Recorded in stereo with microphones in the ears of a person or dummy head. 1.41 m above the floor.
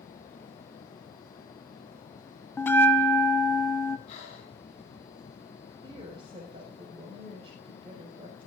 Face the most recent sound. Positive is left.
turn(degrees=-35)  # may be behind; listen again after turning